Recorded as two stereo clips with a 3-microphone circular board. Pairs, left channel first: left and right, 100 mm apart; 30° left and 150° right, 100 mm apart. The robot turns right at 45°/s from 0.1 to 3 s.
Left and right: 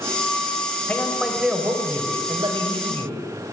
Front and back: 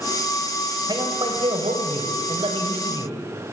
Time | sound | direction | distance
0.9 | a man speaking | 165° left | 4.5 m